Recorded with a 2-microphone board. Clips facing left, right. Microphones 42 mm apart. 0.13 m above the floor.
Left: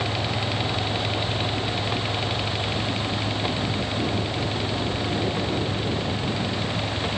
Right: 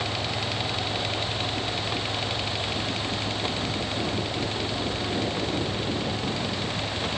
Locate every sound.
Only background noise.